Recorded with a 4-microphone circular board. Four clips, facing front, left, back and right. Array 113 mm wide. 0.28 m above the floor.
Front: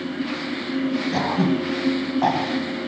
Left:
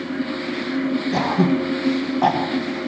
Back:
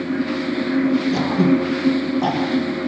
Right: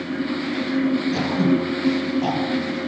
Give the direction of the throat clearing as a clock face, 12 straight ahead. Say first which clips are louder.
Left 1 dB, back 4 dB; 10 o'clock.